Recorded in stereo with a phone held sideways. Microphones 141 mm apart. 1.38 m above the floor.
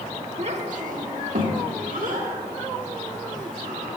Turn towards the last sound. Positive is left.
turn(degrees=-65)  # may be behind; listen again after turning